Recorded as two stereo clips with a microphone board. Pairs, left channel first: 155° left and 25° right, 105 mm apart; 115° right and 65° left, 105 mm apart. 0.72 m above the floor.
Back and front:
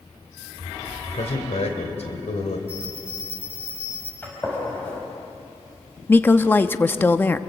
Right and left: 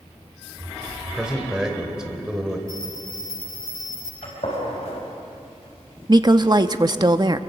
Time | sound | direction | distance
1.1 | a man speaking | 150° left | 3 m
2.7 | a bell | 10° left | 5.5 m
4.2 | a gunshot | 130° right | 5 m
6.1 | a woman speaking | 90° left | 0.9 m